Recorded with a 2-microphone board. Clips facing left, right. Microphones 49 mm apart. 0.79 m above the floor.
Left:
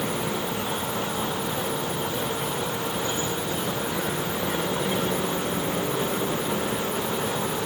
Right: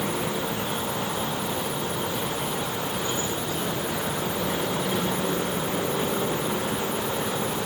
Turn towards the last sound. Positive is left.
No sound to turn to.